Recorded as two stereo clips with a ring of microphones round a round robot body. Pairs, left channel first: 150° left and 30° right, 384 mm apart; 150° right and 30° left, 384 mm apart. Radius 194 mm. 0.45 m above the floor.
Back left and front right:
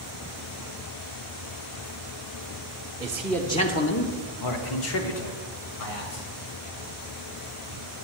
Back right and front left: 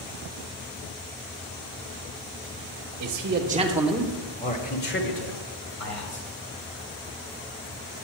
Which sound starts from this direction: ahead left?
A man speaking, at 3.0 s.